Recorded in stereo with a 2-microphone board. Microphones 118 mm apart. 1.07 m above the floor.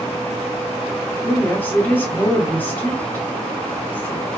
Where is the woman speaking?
15° left (ahead or behind), 1.1 m.